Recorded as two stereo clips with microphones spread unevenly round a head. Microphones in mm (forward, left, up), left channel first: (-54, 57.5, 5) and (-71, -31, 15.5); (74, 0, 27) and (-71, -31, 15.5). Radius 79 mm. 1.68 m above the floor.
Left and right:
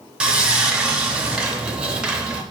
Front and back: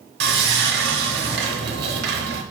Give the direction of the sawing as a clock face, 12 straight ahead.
6 o'clock.